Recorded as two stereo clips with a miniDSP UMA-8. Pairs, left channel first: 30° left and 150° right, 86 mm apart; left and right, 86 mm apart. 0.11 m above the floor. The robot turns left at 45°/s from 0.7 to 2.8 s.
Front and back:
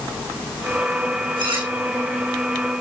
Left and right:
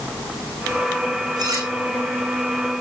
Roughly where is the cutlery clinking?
Behind right.